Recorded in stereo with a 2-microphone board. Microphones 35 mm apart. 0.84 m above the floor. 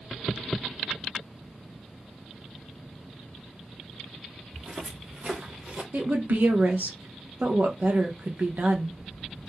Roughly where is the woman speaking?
Right.